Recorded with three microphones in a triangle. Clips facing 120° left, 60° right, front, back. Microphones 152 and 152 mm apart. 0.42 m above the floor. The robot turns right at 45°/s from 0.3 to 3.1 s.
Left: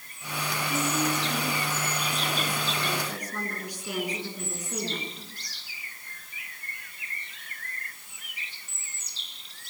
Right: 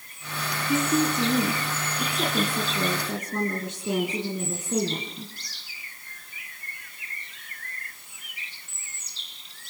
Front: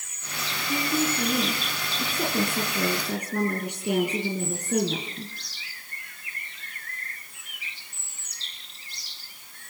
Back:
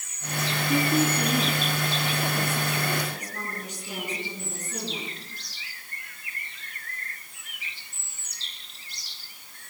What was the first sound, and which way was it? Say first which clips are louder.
A woman speaking: right 6 dB, back 3 dB; 105° right.